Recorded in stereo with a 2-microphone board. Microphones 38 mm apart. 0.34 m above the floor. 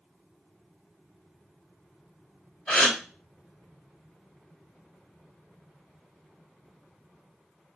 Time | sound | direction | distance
2.7 | a gasp | 20° left (ahead or behind) | 1.5 m